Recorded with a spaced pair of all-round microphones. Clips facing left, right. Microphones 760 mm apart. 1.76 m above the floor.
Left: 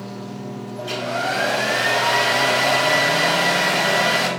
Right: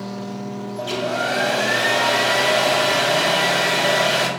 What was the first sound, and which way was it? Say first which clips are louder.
A hair dryer: right 3 dB; 60° right (ahead or behind).